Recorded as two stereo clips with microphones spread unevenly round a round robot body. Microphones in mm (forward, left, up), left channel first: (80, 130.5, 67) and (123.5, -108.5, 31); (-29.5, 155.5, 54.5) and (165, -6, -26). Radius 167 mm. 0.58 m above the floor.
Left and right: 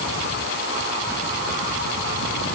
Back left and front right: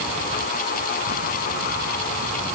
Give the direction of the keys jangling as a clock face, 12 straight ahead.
I don't hear keys jangling.